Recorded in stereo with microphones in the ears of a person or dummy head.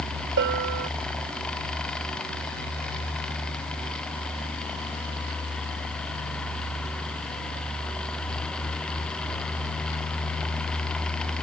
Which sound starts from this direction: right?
A bell, at 0.4 s.